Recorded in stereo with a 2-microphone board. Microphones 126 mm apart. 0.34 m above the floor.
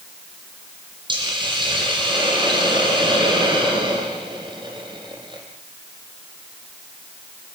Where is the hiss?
40° right (ahead or behind), 7.5 m.